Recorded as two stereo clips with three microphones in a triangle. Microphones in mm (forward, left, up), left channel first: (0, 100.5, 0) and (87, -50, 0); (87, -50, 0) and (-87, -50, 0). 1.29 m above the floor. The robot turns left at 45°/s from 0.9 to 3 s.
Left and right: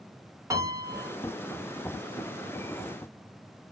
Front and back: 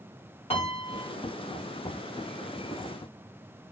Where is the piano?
5° right, 1.0 m; by 1.1 s 15° right, 1.0 m.